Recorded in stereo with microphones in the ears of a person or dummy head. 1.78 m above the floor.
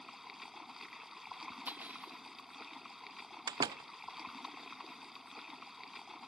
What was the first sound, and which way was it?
Running water, 5° right (ahead or behind).